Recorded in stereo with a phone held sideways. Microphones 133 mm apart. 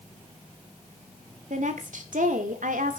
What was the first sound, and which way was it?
A woman speaking, 70° right (ahead or behind).